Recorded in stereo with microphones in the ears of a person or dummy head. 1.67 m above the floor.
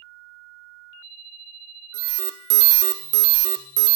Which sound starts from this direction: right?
An alarm, at 1.9 s.